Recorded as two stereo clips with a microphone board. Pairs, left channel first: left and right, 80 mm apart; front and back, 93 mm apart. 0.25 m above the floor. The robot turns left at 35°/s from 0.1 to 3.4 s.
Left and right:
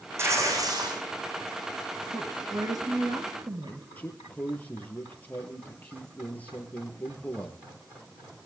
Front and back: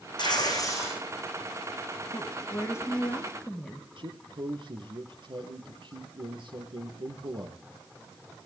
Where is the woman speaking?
35° right, 4.5 m; by 3.9 s 80° right, 4.5 m.